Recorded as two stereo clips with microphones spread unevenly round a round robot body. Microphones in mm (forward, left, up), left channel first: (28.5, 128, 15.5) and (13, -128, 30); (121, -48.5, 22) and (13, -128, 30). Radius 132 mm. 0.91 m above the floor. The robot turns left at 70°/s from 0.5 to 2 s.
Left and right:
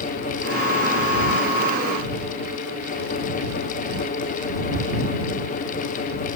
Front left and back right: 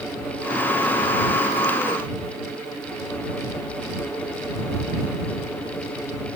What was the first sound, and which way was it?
Only background noise.